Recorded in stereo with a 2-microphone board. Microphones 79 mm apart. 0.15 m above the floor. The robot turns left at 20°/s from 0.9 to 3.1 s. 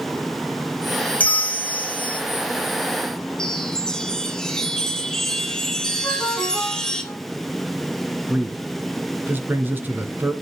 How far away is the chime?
About 2.5 m.